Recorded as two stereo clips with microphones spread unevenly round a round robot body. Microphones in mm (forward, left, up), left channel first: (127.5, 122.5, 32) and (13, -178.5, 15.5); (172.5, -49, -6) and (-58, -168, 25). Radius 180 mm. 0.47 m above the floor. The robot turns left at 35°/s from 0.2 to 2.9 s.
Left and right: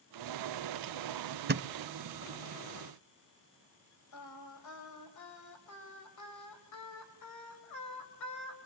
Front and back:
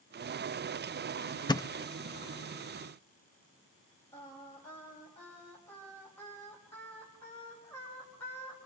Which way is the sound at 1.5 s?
50° right.